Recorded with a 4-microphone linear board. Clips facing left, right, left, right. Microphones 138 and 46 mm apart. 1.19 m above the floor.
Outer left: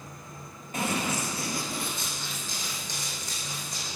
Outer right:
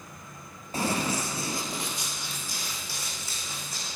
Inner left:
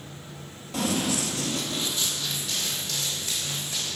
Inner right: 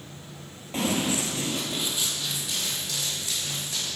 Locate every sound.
0.7 s running footsteps: 35° right (ahead or behind), 1.4 m; by 3.9 s 5° right (ahead or behind), 4.5 m